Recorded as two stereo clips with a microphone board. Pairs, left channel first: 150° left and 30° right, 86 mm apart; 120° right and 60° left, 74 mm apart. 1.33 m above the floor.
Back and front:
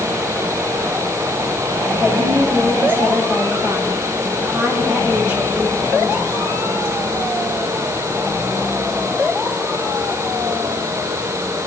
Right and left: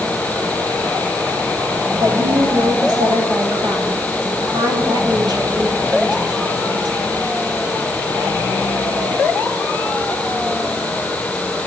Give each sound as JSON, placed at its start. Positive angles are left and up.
{"t": 2.0, "sound": "a woman speaking", "azimuth_deg": 40, "distance_m": 9.0}